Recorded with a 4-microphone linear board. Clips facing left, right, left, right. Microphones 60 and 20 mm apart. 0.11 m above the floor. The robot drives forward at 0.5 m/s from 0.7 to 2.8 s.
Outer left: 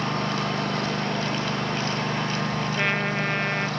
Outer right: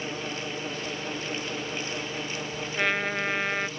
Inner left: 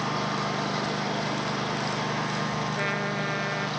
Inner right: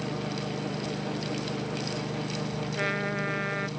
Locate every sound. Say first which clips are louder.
0.0 s a lawn mower: outer left 7 dB, inner left 5 dB; 70° left (ahead or behind); by 3.8 s 65° left (ahead or behind)
2.8 s a trumpet: outer right 1 dB, inner left 1 dB; 5° left (ahead or behind)